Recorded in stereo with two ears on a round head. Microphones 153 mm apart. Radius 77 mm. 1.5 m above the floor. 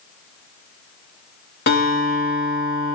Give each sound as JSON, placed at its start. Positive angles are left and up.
{"t": 1.7, "sound": "a guitar", "side_deg": 65, "distance_m": 3.0}